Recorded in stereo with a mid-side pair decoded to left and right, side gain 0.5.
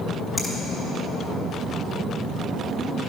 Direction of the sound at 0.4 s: Straight ahead.